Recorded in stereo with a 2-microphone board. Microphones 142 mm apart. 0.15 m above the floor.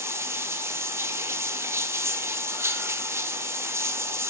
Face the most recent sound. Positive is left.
turn(degrees=-20)  # may be behind; listen again after turning